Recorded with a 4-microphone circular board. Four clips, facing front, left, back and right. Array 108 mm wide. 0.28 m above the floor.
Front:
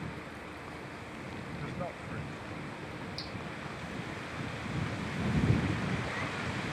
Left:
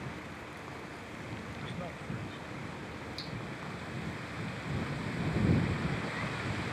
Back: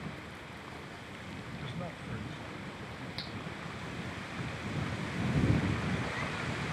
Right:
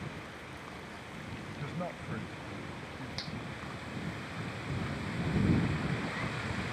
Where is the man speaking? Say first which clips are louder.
Right 2 dB, front 3 dB; 25° right; by 3.1 s 90° right.